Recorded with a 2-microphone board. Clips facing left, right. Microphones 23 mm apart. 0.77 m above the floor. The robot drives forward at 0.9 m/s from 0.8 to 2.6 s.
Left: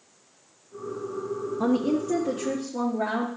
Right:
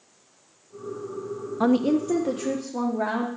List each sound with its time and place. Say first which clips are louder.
1.6 s a woman speaking: right 4 dB; 40° right (ahead or behind), 0.5 m; by 3.3 s 15° right (ahead or behind), 1.1 m